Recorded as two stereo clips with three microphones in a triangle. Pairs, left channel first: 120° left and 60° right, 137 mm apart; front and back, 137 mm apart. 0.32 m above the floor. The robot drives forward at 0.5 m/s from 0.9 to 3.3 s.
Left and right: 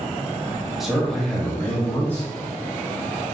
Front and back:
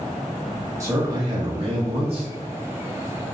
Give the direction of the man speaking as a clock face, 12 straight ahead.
5 o'clock.